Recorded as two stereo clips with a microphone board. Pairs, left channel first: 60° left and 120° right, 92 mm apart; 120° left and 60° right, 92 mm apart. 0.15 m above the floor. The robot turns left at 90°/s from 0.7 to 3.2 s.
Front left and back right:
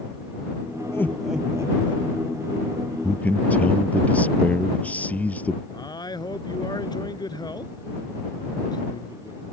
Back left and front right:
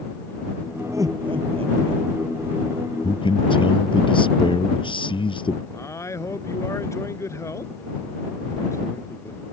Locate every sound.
0.9 s laughter: straight ahead; by 2.0 s 100° right
3.0 s a man speaking: 145° left; by 5.6 s 130° left
5.7 s a man speaking: 70° left